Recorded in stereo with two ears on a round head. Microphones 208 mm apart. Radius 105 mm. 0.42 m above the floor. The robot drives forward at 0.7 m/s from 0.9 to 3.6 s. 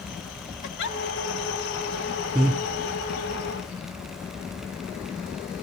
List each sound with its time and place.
0.6 s a giggle: 50° left (ahead or behind), 2.0 m
2.4 s breathing: 5° right (ahead or behind), 2.5 m